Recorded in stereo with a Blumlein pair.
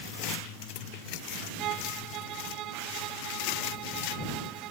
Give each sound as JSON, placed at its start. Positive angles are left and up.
{"t": 1.6, "sound": "a violin", "azimuth_deg": -35}